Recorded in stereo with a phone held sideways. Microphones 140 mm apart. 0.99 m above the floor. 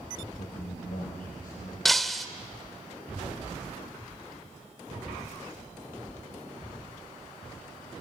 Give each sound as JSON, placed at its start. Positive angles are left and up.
{"t": 0.4, "sound": "a man speaking", "side_deg": 75, "distance_m": 4.5}
{"t": 1.9, "sound": "breaking glass", "side_deg": 0, "distance_m": 1.0}